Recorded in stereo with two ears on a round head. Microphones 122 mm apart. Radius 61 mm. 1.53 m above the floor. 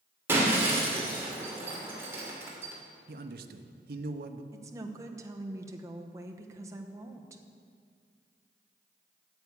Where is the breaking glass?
20° right (ahead or behind), 2.5 m.